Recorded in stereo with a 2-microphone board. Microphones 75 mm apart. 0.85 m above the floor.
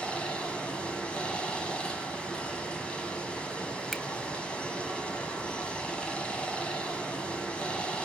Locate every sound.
0.0 s running water: 15° left (ahead or behind), 2.5 m
3.9 s a finger snap: centre (ahead or behind), 0.6 m